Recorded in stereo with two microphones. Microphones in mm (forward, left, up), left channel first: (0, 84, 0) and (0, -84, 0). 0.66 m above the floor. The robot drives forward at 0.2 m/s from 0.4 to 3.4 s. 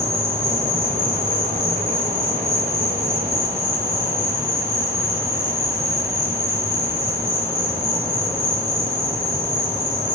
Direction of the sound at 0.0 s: 15° right (ahead or behind).